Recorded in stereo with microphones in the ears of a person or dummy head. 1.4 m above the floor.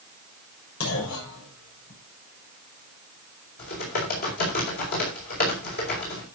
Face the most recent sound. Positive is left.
turn(degrees=50)  # may be behind; listen again after turning